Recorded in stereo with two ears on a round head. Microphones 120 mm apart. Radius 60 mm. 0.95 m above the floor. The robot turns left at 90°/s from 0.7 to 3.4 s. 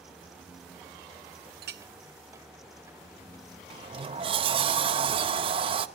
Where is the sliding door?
40° right (ahead or behind), 0.5 m.